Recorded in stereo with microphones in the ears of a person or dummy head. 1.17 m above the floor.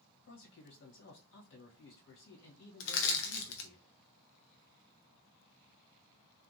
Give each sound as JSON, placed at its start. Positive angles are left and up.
{"t": 0.2, "sound": "a man speaking", "side_deg": 60, "distance_m": 1.4}
{"t": 2.8, "sound": "crushing", "side_deg": 75, "distance_m": 0.8}